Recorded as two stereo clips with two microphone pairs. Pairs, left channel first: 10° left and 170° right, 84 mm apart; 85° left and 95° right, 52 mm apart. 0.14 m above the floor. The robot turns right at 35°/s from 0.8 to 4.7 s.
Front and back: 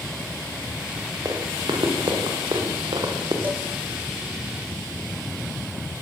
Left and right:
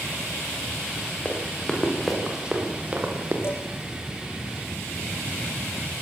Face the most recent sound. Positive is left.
turn(degrees=160)